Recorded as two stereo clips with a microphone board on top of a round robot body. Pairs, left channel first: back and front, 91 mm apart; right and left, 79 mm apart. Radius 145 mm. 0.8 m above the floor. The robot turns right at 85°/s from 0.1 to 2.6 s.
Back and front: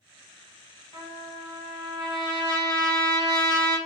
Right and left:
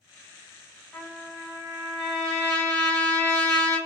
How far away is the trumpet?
About 1.4 m.